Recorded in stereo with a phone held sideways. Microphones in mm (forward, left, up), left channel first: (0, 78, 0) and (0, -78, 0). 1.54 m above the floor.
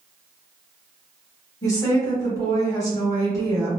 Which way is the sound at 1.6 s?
20° left (ahead or behind).